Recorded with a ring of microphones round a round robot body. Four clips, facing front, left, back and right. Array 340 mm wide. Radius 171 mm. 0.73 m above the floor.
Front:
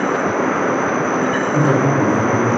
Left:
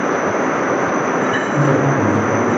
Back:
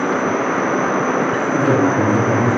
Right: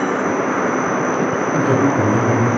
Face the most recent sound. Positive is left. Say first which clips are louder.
# even, back 1 dB
turn(degrees=-150)